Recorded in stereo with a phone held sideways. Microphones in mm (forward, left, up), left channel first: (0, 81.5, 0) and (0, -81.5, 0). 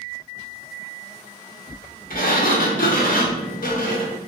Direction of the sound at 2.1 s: 60° left (ahead or behind).